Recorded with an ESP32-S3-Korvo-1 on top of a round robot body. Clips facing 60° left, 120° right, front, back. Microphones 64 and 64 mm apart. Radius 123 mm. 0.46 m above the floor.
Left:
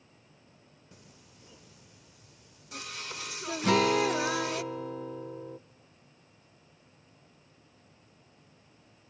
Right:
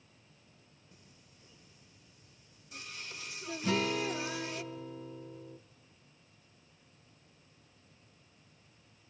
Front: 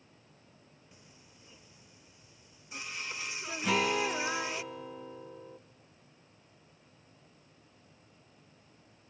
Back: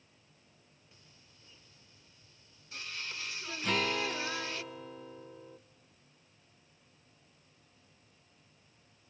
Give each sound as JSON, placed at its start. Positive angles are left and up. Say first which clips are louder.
{"t": 0.9, "sound": "singing", "louder": "left 6 dB, front 5 dB", "azimuth_deg": 75, "distance_m": 0.6}
{"t": 3.6, "sound": "a guitar", "louder": "left 8 dB, front 3 dB", "azimuth_deg": 85, "distance_m": 0.5}